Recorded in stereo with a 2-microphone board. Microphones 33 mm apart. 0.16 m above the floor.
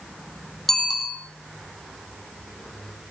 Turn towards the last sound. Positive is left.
turn(degrees=5)  # may be behind; listen again after turning